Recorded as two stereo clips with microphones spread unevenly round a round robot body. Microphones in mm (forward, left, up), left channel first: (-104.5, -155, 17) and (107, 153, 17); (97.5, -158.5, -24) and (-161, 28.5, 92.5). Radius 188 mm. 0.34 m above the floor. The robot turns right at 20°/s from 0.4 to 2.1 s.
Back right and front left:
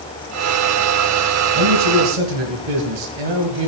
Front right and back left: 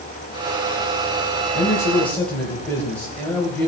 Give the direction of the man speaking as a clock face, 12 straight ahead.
11 o'clock.